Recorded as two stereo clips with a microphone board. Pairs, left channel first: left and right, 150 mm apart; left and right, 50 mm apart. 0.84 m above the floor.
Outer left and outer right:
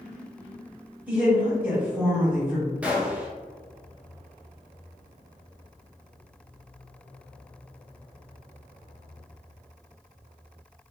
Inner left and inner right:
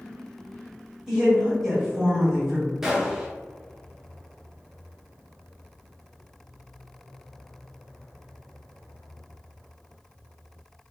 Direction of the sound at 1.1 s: 10° right (ahead or behind).